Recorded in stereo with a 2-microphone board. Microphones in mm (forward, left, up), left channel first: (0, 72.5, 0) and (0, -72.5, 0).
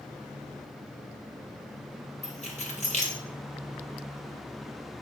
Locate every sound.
2.2 s keys jangling: 55° left (ahead or behind), 0.8 m